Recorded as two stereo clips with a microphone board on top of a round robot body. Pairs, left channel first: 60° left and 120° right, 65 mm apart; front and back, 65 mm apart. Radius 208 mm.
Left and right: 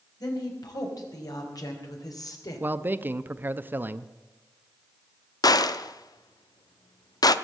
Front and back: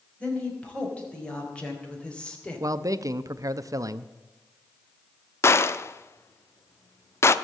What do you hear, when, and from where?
0.2 s a woman speaking: 75° left, 5.5 m
2.6 s a man speaking: 175° right, 0.9 m
5.4 s a gunshot: 50° left, 0.8 m